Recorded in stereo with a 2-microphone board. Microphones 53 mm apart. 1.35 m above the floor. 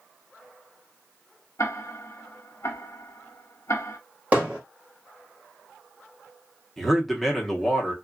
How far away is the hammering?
About 1.4 m.